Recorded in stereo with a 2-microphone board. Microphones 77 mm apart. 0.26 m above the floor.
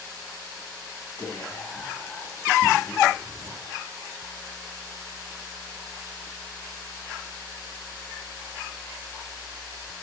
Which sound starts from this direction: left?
Whispering, at 1.2 s.